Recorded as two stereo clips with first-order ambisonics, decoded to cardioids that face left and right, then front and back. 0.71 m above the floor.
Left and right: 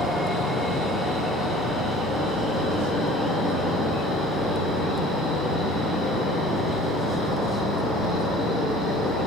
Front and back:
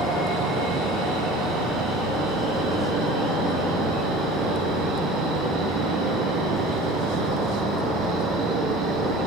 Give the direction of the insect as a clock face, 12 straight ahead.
6 o'clock.